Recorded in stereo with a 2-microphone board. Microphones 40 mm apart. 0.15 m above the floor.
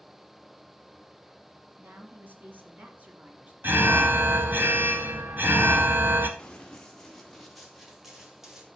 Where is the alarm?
50° right (ahead or behind), 1.8 m.